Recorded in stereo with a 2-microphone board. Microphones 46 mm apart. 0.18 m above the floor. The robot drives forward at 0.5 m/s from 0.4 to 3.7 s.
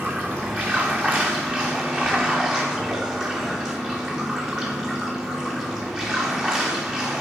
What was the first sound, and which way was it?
Running water, 30° right (ahead or behind).